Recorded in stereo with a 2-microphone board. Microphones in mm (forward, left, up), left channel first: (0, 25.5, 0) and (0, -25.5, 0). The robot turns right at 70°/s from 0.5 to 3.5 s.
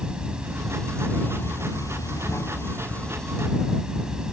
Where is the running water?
15° right; by 4.3 s 165° right.